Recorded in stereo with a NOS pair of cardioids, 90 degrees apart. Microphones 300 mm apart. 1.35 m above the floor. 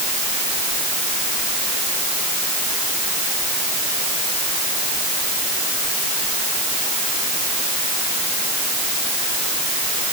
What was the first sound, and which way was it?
Only background noise.